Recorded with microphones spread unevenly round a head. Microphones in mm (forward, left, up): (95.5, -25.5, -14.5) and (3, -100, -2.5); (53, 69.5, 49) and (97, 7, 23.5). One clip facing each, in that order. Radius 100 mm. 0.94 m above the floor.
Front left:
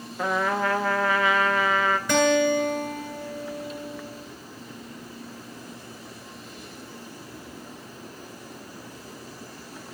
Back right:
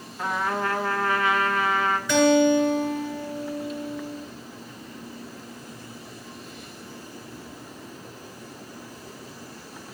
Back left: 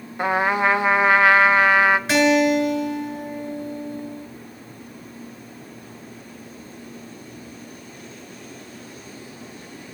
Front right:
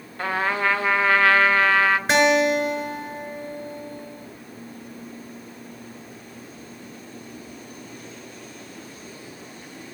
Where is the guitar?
Straight ahead, 7.5 m.